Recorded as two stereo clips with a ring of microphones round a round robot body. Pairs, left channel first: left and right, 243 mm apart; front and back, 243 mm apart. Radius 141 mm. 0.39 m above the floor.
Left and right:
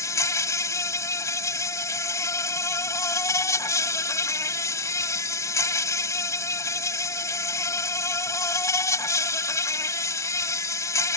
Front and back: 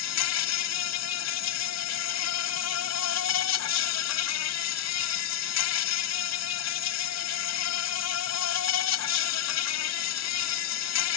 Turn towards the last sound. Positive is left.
turn(degrees=10)